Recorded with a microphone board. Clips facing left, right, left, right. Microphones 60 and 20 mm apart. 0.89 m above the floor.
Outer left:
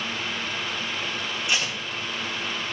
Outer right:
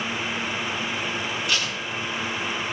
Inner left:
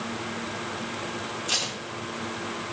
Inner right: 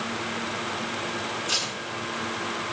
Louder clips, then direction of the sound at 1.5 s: Outer left 2 dB, inner left 1 dB; 25° left (ahead or behind).